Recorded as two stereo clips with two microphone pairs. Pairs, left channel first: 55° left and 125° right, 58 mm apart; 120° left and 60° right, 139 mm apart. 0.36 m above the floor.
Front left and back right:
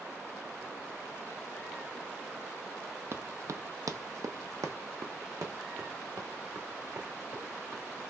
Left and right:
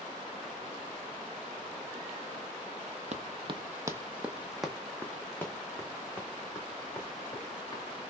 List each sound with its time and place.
3.1 s running footsteps: 90° right, 0.6 m; by 7.8 s 175° right, 2.5 m